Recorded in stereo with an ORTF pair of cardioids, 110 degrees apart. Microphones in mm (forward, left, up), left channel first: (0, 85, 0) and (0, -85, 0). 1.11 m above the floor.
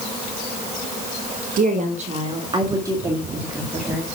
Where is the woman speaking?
55° right, 1.4 m; by 4.1 s 5° right, 2.5 m.